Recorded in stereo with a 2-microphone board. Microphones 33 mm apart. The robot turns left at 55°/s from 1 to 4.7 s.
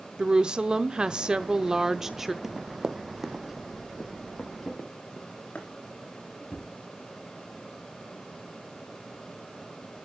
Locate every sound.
0.2 s a woman speaking: 25° right (ahead or behind), 0.7 m; by 2.3 s 5° right (ahead or behind), 0.7 m
2.4 s running footsteps: 10° right (ahead or behind), 0.6 m; by 5.6 s 55° left (ahead or behind), 4 m
4.6 s a drawer: centre (ahead or behind), 5 m; by 6.7 s 5° left (ahead or behind), 5 m